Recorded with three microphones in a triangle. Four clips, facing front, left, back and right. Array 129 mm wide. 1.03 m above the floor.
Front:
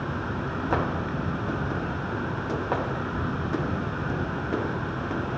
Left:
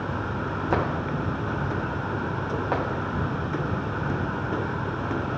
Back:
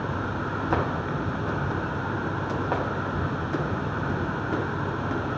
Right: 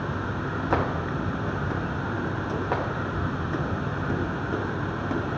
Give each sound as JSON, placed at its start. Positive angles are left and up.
{"t": 0.0, "sound": "an insect", "azimuth_deg": 130, "distance_m": 2.5}